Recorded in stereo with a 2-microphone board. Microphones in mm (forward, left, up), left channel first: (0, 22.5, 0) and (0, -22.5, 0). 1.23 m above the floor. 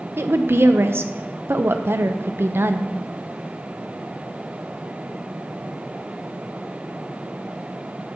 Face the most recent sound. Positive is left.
turn(degrees=-60)  # may be behind; listen again after turning